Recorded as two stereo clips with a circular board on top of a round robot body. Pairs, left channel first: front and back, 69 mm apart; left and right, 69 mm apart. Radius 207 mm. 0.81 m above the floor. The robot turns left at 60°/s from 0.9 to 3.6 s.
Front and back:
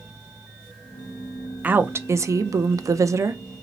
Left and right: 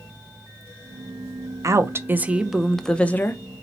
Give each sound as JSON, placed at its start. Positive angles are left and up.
{"t": 1.6, "sound": "a woman speaking", "azimuth_deg": -115, "distance_m": 0.6}